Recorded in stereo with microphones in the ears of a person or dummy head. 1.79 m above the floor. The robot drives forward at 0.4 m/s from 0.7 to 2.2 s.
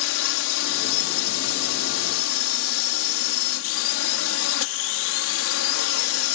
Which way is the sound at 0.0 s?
80° left.